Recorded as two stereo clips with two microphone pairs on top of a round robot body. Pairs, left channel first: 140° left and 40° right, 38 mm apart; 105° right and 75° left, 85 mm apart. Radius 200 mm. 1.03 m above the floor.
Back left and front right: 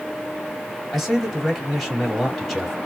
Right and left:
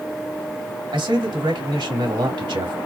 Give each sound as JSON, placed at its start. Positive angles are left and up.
{"t": 0.9, "sound": "a man speaking", "azimuth_deg": 55, "distance_m": 2.5}